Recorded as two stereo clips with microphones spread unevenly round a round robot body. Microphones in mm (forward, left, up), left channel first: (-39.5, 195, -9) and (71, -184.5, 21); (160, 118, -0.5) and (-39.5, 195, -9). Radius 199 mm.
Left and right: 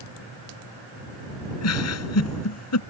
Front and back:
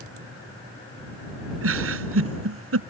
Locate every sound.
1.6 s a giggle: 160° left